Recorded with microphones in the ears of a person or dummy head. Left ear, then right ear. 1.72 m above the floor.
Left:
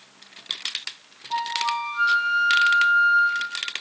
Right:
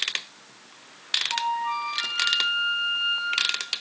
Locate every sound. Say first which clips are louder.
1.3 s a flute: left 1 dB; 50° left (ahead or behind), 3.5 m